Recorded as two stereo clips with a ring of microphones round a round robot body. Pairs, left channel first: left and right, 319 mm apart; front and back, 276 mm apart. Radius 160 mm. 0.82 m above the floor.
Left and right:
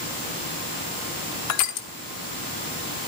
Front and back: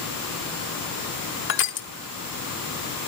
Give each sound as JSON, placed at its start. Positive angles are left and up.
{"t": 1.5, "sound": "crushing", "azimuth_deg": 50, "distance_m": 1.2}